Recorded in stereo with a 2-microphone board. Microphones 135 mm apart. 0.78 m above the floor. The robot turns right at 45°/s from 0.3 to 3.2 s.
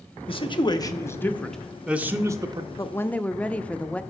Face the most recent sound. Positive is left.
turn(degrees=10)  # may be behind; listen again after turning